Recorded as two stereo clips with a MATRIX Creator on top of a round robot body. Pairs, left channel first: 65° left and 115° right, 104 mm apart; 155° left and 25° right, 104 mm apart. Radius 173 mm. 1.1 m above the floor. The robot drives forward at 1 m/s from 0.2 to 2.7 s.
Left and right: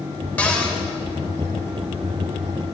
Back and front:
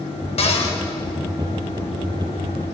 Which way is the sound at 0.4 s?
145° left.